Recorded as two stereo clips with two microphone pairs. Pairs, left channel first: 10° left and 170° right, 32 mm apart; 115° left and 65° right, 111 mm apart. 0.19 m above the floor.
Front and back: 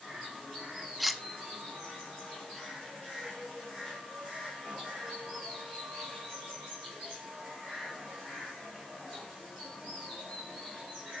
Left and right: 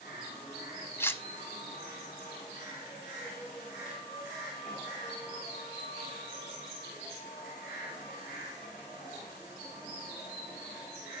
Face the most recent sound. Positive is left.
turn(degrees=100)